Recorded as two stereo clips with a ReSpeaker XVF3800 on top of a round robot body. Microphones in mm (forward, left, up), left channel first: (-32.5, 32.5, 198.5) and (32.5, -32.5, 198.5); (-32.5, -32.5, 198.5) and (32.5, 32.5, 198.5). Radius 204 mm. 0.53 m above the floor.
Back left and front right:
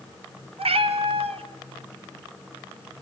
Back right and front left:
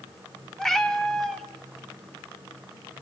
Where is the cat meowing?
50° right, 1.4 m.